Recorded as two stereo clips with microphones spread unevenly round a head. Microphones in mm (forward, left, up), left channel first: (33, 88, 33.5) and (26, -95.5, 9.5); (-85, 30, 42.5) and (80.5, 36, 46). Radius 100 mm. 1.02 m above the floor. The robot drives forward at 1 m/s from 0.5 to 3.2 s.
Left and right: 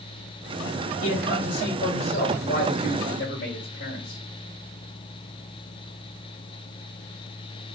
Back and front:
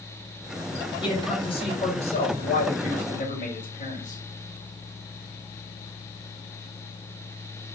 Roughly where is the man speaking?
Behind left.